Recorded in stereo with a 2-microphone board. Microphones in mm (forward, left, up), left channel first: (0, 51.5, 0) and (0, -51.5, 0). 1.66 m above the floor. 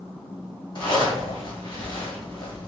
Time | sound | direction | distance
0.8 | a zipper | 45° left (ahead or behind) | 1.2 m